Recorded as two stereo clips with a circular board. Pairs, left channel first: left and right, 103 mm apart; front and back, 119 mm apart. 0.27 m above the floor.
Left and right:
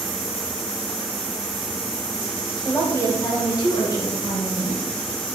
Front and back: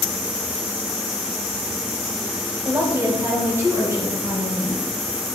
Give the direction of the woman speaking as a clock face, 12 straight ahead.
8 o'clock.